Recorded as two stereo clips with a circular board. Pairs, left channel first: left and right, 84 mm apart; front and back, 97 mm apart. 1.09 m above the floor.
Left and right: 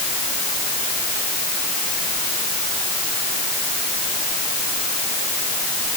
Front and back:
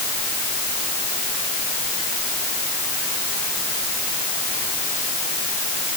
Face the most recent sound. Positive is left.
No sound to turn to.